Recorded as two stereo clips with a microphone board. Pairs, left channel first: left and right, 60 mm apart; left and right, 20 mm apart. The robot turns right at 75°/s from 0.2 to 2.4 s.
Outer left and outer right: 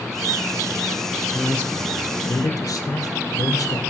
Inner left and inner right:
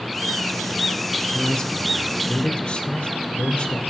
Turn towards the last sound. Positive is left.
turn(degrees=90)